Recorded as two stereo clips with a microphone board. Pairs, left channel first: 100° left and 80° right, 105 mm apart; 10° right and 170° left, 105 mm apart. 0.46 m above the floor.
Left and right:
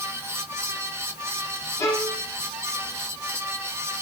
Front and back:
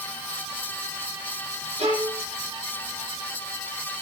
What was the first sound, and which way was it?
A violin, 165° left.